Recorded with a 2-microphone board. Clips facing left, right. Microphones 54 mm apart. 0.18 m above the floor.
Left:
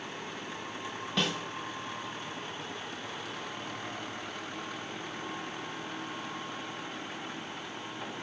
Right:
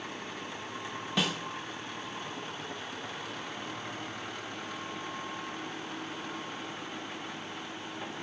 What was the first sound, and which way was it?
A snare drum, 5° right (ahead or behind).